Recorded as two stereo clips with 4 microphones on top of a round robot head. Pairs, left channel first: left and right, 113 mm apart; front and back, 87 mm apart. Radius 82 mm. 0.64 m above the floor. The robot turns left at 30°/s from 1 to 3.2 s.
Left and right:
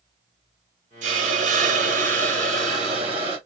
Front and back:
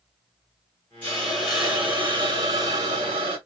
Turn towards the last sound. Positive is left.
turn(degrees=-140)